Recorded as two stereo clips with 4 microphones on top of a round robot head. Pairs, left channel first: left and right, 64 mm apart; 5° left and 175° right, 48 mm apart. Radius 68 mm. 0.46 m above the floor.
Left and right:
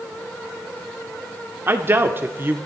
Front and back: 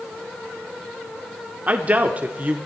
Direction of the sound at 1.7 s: 130° right.